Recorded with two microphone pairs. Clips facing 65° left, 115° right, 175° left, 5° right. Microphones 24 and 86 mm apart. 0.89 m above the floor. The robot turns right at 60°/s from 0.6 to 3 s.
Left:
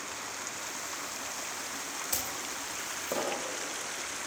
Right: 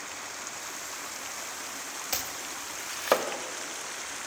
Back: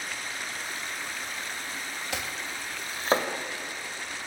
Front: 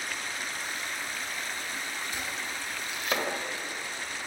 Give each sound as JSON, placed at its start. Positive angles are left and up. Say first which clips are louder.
{"t": 2.1, "sound": "chopping", "louder": "right 3 dB, back 1 dB", "azimuth_deg": 180, "distance_m": 2.5}